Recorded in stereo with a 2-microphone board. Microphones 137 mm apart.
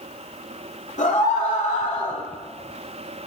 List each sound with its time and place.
1.0 s a scream: 65° left (ahead or behind), 4.5 m